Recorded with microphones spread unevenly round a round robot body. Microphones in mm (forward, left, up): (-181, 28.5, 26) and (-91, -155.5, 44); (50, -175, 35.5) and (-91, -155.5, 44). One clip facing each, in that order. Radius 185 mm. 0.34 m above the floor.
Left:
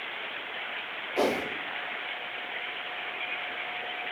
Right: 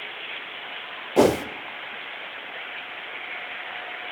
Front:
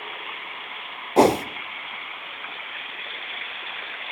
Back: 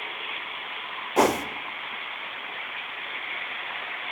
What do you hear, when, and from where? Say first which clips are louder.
1.2 s a whoosh: right 9 dB, front 5 dB; 60° right, 0.8 m